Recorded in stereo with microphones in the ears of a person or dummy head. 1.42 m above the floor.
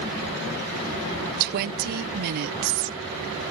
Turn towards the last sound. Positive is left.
turn(degrees=-55)  # may be behind; listen again after turning